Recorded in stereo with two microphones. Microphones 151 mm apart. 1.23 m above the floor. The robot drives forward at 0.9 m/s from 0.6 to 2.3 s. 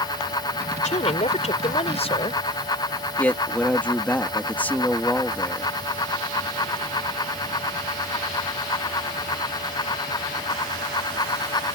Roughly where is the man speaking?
Centre.